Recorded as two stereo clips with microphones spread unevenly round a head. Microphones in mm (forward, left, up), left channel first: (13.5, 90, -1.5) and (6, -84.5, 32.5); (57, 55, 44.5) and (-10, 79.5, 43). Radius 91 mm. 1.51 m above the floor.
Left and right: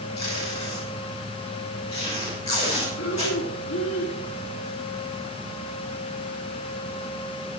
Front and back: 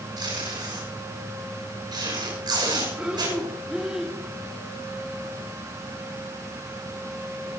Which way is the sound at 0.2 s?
150° left.